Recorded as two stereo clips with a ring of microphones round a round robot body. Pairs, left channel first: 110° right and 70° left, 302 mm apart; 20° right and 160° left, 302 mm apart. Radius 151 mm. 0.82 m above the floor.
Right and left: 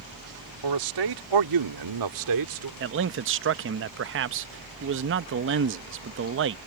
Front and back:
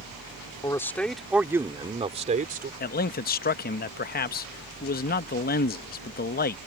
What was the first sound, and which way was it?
A man speaking, 55° left.